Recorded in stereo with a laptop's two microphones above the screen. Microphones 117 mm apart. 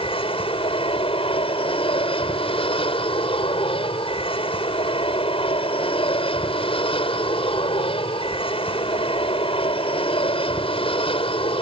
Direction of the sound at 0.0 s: 50° left (ahead or behind).